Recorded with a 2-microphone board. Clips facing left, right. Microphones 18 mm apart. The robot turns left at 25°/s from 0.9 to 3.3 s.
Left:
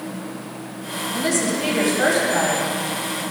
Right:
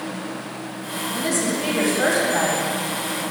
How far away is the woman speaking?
About 2.5 m.